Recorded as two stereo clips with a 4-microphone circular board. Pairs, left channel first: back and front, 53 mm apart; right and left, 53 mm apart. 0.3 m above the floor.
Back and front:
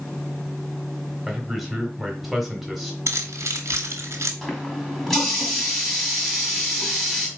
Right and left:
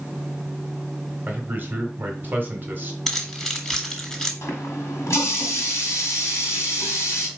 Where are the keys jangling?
10° right, 1.6 m.